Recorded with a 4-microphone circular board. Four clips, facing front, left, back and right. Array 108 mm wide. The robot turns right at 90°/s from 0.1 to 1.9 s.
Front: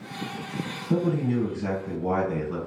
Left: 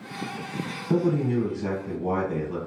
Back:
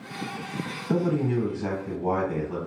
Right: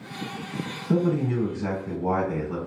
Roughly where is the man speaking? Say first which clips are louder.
Even, even; behind left.